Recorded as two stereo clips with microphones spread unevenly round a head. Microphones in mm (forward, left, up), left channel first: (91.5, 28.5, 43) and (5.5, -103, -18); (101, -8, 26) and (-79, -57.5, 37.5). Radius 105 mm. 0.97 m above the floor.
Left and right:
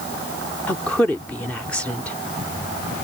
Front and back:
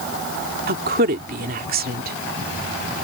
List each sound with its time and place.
0.7 s a woman speaking: 145° left